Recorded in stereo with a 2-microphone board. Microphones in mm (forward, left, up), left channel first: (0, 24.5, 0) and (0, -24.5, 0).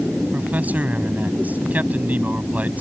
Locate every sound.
0.3 s a man speaking: 35° right (ahead or behind)